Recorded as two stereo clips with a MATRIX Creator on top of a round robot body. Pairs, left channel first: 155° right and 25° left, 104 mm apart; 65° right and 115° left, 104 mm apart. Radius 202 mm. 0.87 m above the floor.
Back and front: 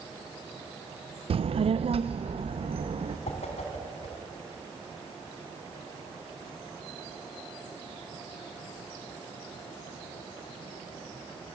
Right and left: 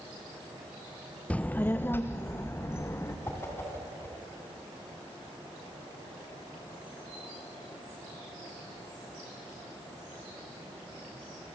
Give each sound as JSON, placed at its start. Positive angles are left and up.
{"t": 1.3, "sound": "a child speaking", "azimuth_deg": 10, "distance_m": 0.5}
{"t": 3.3, "sound": "a whoosh", "azimuth_deg": -135, "distance_m": 2.5}